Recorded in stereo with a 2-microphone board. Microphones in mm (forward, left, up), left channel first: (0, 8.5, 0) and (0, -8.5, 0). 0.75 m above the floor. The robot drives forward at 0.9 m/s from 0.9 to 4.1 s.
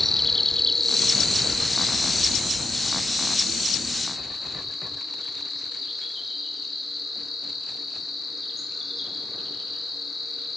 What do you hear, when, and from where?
0.0 s an insect: 15° left (ahead or behind), 1.0 m; by 10.6 s 5° left (ahead or behind), 4 m